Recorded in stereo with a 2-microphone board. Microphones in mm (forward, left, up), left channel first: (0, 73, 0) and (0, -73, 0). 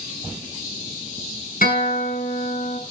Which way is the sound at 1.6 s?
75° left (ahead or behind).